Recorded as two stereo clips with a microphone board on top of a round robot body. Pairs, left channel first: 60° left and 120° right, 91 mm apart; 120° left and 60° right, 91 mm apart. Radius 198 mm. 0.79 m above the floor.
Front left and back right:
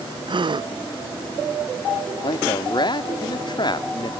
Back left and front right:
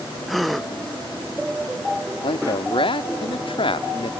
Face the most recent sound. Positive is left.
turn(degrees=100)